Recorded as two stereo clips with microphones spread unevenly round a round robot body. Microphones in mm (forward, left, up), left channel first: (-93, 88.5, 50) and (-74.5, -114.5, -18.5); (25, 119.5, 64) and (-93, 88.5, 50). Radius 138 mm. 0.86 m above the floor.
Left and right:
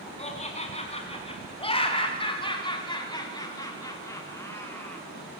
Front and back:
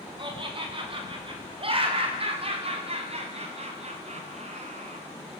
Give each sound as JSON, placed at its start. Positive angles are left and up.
{"t": 0.2, "sound": "laughter", "azimuth_deg": 150, "distance_m": 7.5}